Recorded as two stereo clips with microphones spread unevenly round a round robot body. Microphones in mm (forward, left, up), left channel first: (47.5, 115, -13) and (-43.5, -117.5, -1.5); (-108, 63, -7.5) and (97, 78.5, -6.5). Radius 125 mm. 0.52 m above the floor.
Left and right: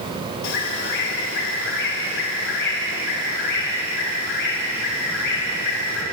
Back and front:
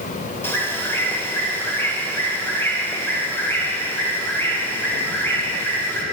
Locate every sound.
0.4 s a bird: 105° left, 2.5 m